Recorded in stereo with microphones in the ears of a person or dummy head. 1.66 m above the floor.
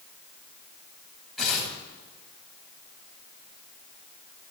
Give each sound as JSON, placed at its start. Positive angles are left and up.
{"t": 1.4, "sound": "tearing paper", "side_deg": 0, "distance_m": 5.0}